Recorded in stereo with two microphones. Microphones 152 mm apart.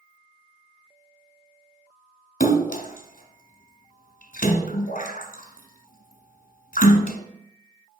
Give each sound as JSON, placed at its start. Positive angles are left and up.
{"t": 2.4, "sound": "a splash", "side_deg": 70, "distance_m": 1.2}